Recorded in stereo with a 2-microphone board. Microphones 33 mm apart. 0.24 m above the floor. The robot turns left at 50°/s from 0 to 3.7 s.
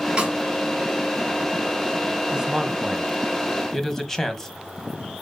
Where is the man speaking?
25° right (ahead or behind), 1.1 m; by 4.5 s 15° left (ahead or behind), 1.1 m.